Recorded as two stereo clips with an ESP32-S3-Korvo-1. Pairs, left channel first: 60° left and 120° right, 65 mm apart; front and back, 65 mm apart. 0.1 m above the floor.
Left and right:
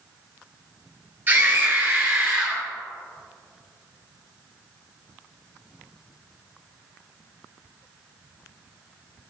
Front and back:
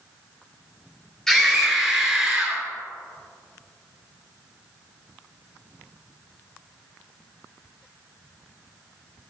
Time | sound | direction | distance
1.3 | a scream | 80° right | 2 m